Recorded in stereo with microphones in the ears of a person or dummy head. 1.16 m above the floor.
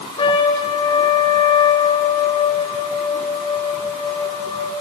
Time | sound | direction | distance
0.2 | a trumpet | 30° left (ahead or behind) | 2 m